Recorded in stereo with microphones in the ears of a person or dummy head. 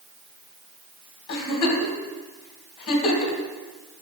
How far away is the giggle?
About 2 m.